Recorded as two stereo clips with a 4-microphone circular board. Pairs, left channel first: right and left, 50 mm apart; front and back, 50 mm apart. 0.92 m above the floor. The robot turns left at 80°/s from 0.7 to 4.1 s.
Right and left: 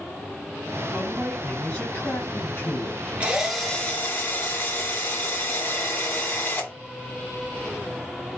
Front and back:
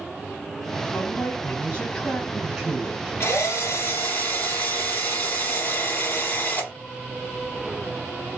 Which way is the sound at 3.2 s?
25° left.